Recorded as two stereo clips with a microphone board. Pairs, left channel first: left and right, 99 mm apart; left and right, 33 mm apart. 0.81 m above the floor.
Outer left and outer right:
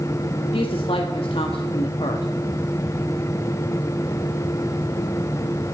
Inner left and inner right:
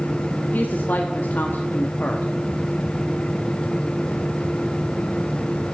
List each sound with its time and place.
0.5 s a woman speaking: 65° left (ahead or behind), 1.2 m